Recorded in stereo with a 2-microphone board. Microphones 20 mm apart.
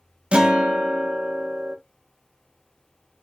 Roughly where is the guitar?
Right.